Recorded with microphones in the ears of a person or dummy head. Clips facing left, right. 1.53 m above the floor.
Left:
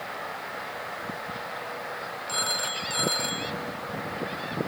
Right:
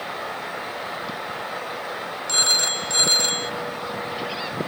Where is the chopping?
I don't hear chopping.